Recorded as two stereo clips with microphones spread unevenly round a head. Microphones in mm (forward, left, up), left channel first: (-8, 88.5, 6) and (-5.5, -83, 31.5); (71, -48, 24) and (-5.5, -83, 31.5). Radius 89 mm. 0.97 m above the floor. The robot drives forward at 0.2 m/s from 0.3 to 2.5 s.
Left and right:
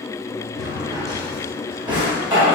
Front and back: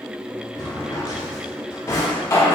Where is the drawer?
20° right, 1.1 m; by 2.6 s 35° right, 0.8 m.